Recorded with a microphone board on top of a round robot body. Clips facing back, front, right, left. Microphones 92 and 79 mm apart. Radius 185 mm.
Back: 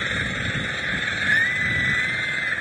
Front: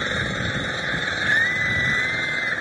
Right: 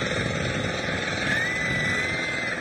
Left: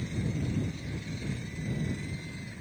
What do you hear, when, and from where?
0.0 s an engine running: 70° right
1.2 s a scream: 100° right